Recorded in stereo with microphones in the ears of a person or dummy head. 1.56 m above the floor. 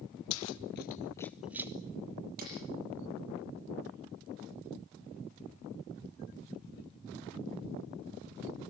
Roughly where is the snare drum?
Right.